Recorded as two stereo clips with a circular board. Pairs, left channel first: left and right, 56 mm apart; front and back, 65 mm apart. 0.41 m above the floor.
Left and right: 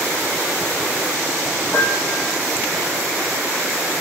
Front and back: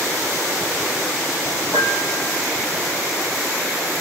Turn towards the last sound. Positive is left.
turn(degrees=180)